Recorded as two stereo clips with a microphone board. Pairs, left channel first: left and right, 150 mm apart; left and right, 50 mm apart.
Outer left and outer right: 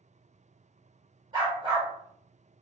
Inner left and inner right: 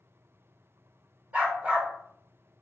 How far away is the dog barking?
About 1.4 m.